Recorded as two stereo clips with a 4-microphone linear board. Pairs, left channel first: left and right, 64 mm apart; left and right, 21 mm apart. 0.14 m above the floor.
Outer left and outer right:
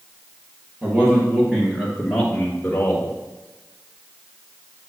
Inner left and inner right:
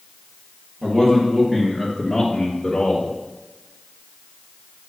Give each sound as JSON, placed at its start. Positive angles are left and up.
{"t": 0.8, "sound": "a man speaking", "side_deg": -30, "distance_m": 3.0}